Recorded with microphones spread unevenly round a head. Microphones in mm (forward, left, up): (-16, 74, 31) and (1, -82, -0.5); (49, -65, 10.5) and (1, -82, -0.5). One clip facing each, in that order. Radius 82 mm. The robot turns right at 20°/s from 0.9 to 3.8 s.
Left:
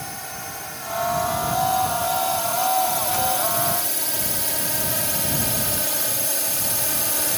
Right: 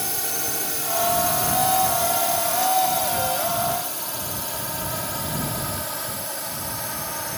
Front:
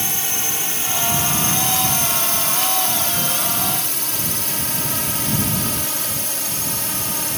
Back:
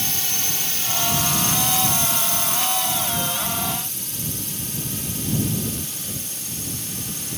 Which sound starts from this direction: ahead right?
A drone, at 0.0 s.